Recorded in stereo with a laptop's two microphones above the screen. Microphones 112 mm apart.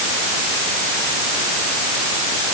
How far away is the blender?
No blender in this recording.